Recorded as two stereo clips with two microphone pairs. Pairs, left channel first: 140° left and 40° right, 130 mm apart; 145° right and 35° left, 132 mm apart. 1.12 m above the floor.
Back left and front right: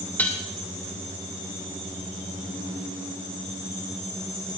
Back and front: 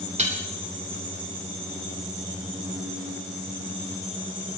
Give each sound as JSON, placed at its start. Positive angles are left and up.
{"t": 0.2, "sound": "dishes clattering", "azimuth_deg": 65, "distance_m": 3.0}